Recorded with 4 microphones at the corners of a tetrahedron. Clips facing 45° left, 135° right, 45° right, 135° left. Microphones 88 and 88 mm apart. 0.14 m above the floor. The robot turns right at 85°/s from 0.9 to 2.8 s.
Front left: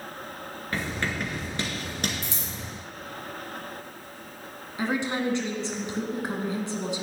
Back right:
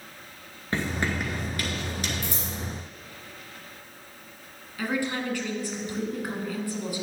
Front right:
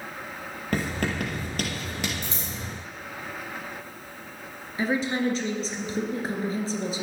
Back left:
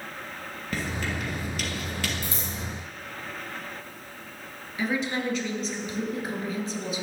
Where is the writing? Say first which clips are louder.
Back right 2 dB, front right 4 dB; 75° right, 1.9 m; by 2.1 s 30° left, 1.9 m.